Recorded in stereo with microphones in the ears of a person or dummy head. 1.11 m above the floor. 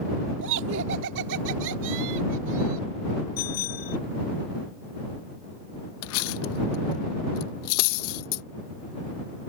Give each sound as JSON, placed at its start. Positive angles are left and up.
{"t": 0.4, "sound": "laughter", "side_deg": -65}
{"t": 3.4, "sound": "a bicycle bell", "side_deg": 50}
{"t": 6.0, "sound": "cutlery clinking", "side_deg": 80}